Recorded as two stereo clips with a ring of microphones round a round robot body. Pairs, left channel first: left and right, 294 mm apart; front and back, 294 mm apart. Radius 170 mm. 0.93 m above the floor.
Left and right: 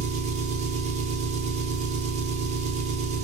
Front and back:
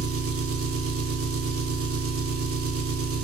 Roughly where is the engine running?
Behind right.